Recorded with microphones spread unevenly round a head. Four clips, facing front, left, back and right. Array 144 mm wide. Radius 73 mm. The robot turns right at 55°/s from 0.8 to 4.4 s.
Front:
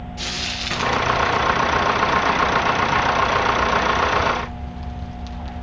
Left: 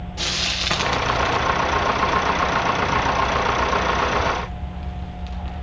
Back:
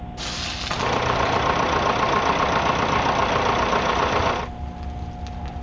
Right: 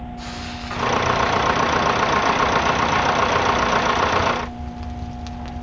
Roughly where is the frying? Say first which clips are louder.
Left 2 dB, front 1 dB; left.